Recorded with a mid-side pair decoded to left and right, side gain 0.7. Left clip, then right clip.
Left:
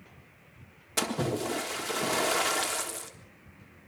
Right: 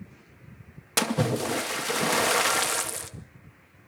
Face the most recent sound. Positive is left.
turn(degrees=-50)